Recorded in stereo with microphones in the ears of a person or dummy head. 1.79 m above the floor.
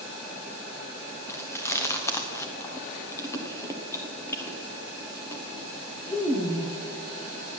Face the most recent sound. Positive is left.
turn(degrees=20)  # may be behind; listen again after turning